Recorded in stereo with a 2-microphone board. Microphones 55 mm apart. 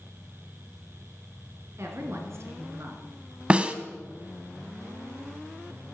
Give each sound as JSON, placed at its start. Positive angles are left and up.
{"t": 1.8, "sound": "a woman speaking", "side_deg": -55, "distance_m": 3.0}
{"t": 3.5, "sound": "a snare drum", "side_deg": -20, "distance_m": 0.9}